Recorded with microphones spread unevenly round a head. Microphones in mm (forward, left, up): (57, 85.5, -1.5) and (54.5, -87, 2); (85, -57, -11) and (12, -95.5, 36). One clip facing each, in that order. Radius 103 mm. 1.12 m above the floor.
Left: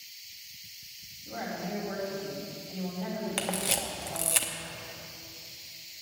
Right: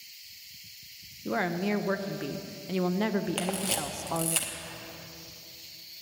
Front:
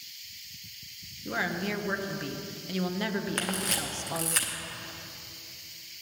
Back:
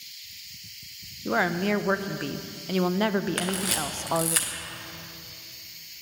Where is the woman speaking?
105° right, 0.5 m.